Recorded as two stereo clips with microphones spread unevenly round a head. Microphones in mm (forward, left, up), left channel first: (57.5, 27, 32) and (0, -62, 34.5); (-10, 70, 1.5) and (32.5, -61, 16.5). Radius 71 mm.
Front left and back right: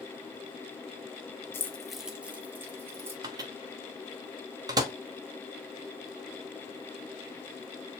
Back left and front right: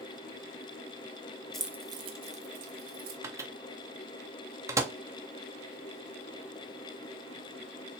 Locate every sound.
1.5 s keys jangling: 15° left, 0.7 m; by 3.1 s 55° right, 1.8 m
3.2 s a microwave: 110° right, 0.7 m